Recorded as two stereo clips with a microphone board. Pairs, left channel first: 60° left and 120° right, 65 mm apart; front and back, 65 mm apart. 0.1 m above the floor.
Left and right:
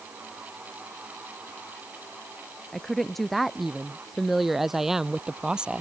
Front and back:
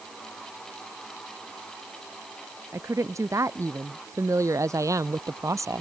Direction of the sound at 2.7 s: 150° left.